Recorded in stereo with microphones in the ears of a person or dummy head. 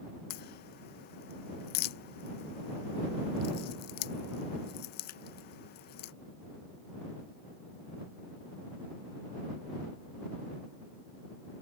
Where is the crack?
50° left (ahead or behind).